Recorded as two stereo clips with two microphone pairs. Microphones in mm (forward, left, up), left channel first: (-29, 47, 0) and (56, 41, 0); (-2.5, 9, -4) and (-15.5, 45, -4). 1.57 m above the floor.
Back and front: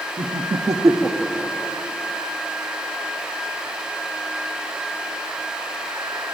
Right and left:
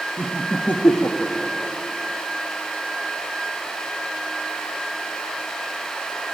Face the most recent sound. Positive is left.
turn(degrees=-120)